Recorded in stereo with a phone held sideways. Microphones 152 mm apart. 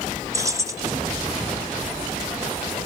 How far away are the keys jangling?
About 0.9 m.